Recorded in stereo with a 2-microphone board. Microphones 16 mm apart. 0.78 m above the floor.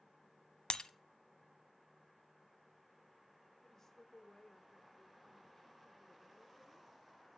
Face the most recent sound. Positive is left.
turn(degrees=30)  # may be behind; listen again after turning